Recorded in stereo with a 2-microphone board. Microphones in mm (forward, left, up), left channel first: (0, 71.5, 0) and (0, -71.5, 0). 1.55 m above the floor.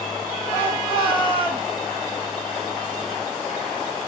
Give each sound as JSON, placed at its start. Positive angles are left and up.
{"t": 0.5, "sound": "a shout", "side_deg": 35, "distance_m": 9.5}